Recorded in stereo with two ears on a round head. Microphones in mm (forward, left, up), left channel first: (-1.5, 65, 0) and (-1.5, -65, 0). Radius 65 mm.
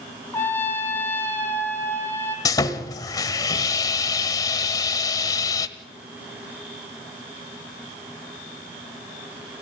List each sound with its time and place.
0.3 s a trumpet: 15° left (ahead or behind), 2.5 m
2.5 s sawing: 25° left (ahead or behind), 1.2 m